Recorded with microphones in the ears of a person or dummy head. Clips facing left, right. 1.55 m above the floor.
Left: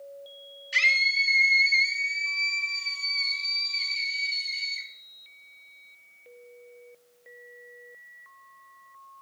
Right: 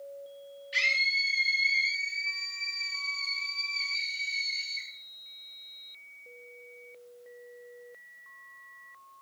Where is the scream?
65° left (ahead or behind), 2.5 m; by 4.9 s 45° left (ahead or behind), 5.5 m.